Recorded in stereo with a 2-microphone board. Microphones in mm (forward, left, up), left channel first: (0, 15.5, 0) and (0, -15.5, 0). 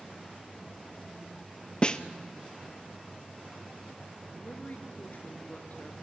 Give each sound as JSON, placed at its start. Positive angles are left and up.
{"t": 1.8, "sound": "a snare drum", "side_deg": 25, "distance_m": 0.8}
{"t": 4.4, "sound": "a woman speaking", "side_deg": 55, "distance_m": 3.0}